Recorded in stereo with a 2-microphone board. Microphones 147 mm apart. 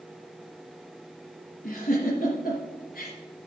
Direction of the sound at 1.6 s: 70° left (ahead or behind).